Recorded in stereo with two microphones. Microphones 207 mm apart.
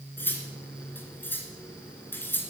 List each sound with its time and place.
0.2 s cutlery clinking: 10° left (ahead or behind), 2.0 m